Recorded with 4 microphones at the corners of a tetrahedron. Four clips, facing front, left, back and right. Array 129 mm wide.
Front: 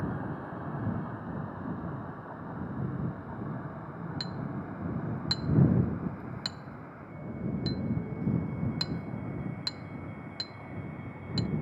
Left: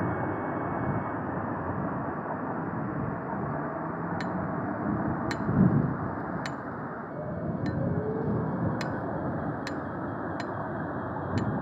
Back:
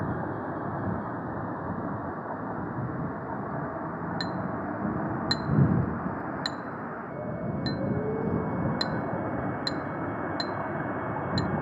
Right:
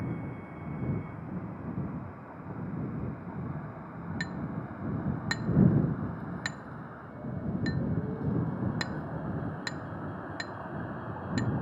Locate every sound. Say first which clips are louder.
0.0 s a vehicle: left 9 dB, back 5 dB; 120° left; by 11.6 s 155° left
4.2 s a clink: left 6 dB, back 7 dB; 170° right